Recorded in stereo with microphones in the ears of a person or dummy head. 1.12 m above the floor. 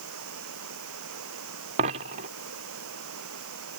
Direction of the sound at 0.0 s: 75° right (ahead or behind).